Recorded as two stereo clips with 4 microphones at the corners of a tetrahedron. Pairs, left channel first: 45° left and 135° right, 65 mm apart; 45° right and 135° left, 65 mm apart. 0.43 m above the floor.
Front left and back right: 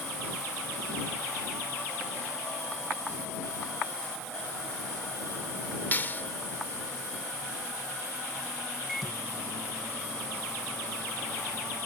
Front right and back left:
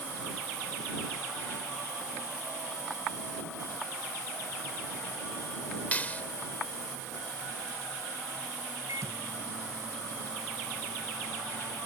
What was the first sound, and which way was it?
A clap, 5° left.